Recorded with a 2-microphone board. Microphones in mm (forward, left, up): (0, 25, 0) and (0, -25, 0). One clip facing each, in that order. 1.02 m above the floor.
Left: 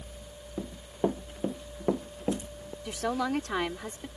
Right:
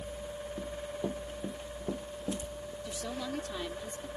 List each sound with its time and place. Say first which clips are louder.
0.6 s running footsteps: left 7 dB; 50° left (ahead or behind); by 2.8 s 55° left (ahead or behind)
2.9 s a woman speaking: left 9 dB; 80° left